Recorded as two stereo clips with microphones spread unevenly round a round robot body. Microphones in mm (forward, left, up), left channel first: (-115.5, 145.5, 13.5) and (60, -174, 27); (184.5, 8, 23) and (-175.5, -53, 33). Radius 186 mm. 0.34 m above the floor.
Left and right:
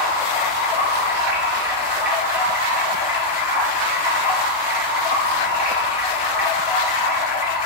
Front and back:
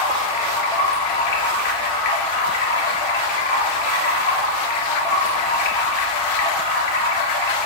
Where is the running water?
20° left, 2.5 m.